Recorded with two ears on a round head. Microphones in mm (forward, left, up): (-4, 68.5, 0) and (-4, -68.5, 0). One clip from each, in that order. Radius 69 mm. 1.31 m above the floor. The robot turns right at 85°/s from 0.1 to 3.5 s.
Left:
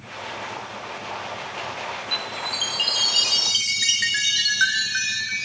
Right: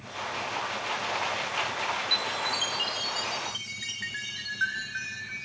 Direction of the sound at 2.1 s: 30° right.